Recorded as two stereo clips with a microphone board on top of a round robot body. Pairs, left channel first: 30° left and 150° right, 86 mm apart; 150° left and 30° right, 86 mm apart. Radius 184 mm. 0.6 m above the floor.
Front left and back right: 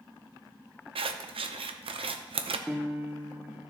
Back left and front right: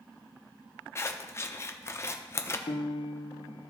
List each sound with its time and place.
0.9 s scissors: 150° right, 0.6 m
2.7 s a piano: 130° left, 0.9 m